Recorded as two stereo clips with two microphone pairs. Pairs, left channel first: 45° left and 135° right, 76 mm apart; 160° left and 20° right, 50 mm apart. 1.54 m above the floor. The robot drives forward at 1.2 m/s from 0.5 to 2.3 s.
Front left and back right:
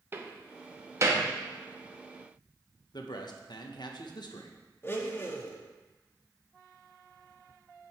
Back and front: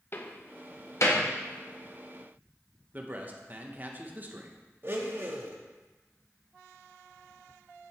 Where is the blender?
Straight ahead, 1.3 m.